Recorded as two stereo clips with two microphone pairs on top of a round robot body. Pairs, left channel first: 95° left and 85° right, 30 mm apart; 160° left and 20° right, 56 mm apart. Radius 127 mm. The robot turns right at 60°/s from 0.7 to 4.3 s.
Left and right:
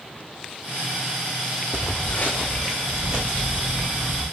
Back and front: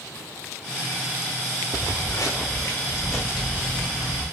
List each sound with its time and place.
1.7 s footsteps: 60° left, 0.6 m; by 4.2 s 35° right, 1.3 m